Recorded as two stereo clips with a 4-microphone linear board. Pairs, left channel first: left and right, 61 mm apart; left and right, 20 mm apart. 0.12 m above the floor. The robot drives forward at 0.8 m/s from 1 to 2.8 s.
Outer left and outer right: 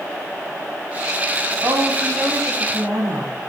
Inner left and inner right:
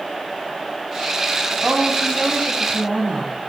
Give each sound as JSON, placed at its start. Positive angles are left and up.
{"t": 1.6, "sound": "a woman speaking", "side_deg": -80, "distance_m": 5.0}